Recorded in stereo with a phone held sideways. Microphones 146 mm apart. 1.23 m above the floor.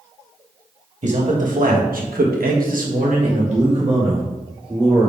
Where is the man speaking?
55° right (ahead or behind), 1.7 m; by 5.1 s 30° right (ahead or behind), 2.5 m.